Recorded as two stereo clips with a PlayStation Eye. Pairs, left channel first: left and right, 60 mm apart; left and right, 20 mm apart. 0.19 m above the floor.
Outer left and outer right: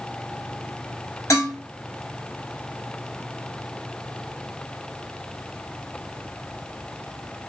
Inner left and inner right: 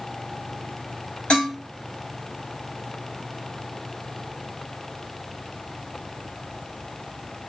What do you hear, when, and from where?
1.3 s dishes clattering: 70° left (ahead or behind), 1.9 m